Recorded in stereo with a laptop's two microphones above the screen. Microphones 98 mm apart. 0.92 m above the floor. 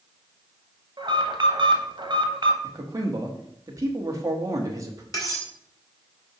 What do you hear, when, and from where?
1.0 s an alarm: 50° right (ahead or behind), 1.1 m
2.6 s a man speaking: 35° right (ahead or behind), 1.1 m
5.1 s cutlery clinking: 35° left (ahead or behind), 2.5 m